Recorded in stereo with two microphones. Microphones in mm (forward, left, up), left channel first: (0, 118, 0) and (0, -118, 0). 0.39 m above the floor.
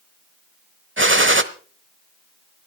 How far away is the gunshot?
About 1.0 m.